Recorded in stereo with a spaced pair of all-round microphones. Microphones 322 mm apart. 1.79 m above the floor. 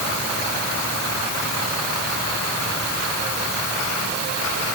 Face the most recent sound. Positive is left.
No sound to turn to.